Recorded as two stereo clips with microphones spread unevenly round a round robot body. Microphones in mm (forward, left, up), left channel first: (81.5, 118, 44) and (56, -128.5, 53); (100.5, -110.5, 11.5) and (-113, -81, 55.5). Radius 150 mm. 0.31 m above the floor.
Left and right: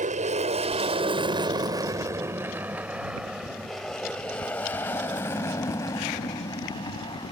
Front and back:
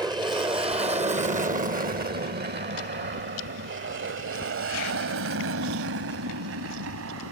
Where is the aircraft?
115° right; by 7.3 s 155° left.